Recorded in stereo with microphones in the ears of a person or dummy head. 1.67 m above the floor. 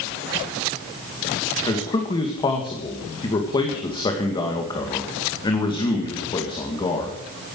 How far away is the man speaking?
About 2 m.